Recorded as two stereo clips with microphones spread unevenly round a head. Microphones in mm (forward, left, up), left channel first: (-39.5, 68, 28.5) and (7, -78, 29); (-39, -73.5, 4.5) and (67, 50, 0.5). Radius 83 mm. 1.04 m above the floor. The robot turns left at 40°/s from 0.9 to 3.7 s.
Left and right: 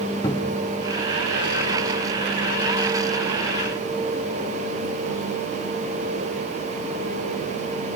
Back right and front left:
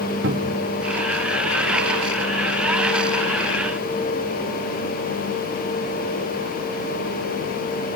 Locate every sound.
0.2 s a cupboard door: 40° left, 1.4 m